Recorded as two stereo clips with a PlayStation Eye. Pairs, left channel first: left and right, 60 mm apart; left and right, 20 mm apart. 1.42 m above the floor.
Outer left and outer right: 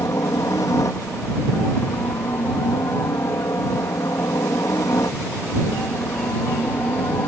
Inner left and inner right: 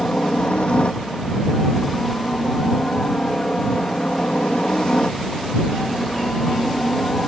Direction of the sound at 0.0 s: 60° left (ahead or behind).